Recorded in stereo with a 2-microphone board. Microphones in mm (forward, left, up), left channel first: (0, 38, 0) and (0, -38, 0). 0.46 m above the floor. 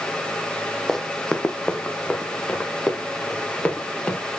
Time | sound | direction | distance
0.9 | running footsteps | 5° left (ahead or behind) | 0.8 m